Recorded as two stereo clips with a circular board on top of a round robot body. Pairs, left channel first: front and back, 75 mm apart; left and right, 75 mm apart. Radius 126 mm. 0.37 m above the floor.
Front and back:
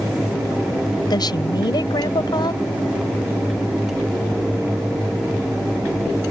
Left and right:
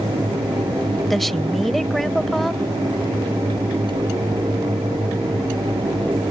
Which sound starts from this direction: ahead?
A woman speaking, at 1.1 s.